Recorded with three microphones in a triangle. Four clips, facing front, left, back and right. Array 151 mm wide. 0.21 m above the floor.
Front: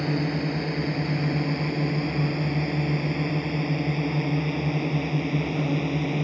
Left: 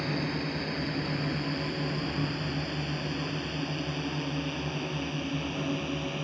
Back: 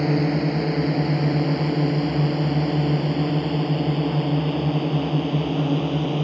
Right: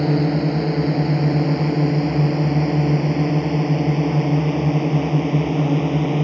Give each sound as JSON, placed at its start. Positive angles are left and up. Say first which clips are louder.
{"t": 0.0, "sound": "a drone", "louder": "right 13 dB, back 5 dB", "azimuth_deg": -120}